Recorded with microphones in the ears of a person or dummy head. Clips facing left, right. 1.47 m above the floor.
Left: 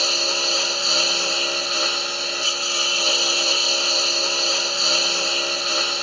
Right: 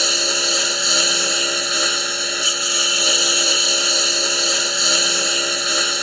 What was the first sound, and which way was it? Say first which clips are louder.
A lawn mower: right 2 dB; 15° right (ahead or behind).